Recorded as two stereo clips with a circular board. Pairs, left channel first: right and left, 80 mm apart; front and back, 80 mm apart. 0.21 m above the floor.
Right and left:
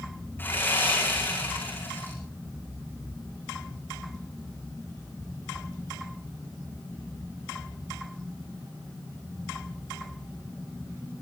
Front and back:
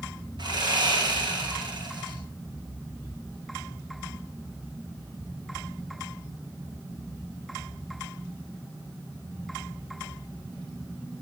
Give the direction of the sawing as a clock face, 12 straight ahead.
5 o'clock.